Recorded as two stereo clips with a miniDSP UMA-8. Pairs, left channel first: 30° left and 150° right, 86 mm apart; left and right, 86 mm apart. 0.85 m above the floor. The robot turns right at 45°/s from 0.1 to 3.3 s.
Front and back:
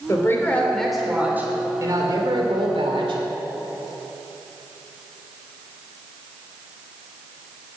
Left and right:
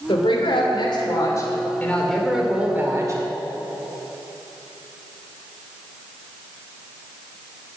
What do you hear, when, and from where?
0.1 s a woman speaking: 85° left, 2.5 m; by 3.2 s 135° right, 2.5 m